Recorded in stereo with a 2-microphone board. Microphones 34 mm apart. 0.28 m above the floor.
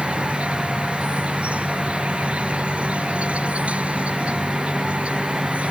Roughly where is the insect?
Right.